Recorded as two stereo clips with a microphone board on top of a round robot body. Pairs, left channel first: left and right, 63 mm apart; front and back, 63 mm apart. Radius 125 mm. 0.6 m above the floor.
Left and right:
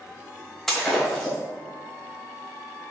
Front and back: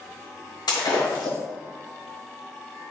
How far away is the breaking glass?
About 1.8 m.